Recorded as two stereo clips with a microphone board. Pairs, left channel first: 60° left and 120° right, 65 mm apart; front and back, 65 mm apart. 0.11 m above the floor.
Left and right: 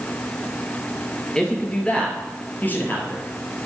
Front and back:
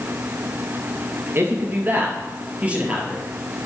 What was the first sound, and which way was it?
A man speaking, 135° left.